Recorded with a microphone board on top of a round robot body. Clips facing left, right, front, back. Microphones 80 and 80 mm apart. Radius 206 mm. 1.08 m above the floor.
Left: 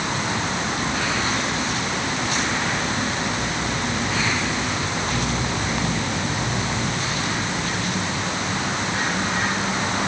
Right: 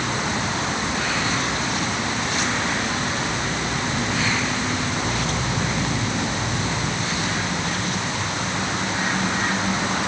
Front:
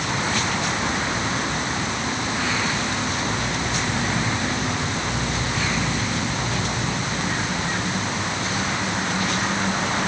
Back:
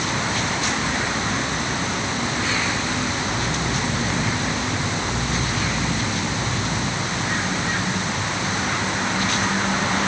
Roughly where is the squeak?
I don't hear a squeak.